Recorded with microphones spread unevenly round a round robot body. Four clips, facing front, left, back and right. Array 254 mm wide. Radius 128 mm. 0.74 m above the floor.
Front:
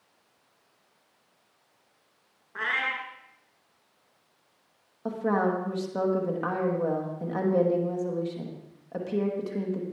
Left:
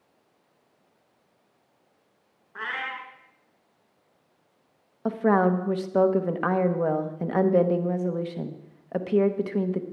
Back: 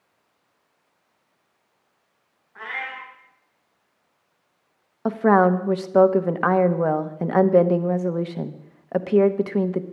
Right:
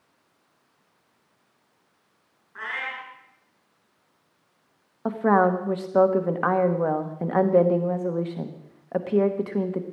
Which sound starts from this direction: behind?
A woman speaking, at 5.0 s.